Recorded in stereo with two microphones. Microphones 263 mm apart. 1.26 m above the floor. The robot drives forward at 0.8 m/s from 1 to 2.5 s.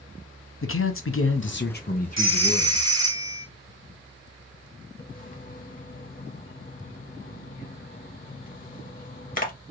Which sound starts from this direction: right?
A phone ringing, at 2.2 s.